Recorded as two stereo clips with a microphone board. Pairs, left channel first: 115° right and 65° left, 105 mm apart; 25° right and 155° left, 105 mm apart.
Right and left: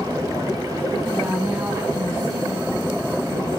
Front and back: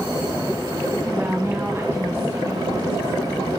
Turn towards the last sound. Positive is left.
turn(degrees=90)